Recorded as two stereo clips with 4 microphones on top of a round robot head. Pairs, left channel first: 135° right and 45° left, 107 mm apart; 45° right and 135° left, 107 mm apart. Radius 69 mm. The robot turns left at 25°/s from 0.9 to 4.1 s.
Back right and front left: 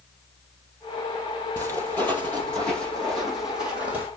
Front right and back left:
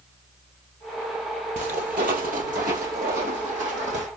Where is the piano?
I don't hear a piano.